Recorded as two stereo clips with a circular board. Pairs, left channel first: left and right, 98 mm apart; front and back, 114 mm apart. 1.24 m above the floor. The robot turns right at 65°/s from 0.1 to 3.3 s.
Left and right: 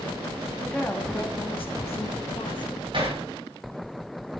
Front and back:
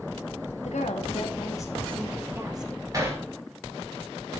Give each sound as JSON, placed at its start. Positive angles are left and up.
{"t": 0.6, "sound": "a woman speaking", "azimuth_deg": 0, "distance_m": 2.5}
{"t": 2.9, "sound": "hammering", "azimuth_deg": -120, "distance_m": 6.0}